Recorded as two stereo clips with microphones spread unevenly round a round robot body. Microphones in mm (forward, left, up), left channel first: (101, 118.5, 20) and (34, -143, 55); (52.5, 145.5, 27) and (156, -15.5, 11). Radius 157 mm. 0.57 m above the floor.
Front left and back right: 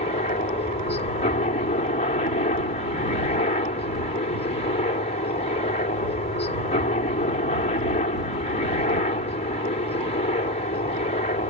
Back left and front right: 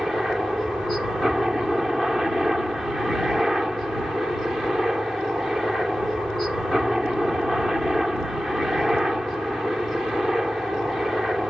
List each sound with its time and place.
0.0 s a helicopter: 30° left